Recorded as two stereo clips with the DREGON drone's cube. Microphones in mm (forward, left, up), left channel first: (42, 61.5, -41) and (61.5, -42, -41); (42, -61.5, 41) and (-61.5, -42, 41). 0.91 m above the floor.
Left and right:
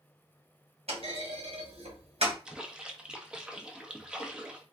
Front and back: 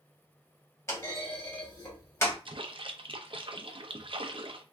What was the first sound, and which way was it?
A clunk, 75° right.